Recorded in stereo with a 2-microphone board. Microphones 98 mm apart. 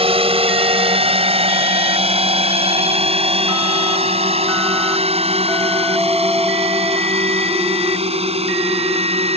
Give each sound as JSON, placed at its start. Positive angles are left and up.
{"t": 0.0, "sound": "a drone", "side_deg": -70}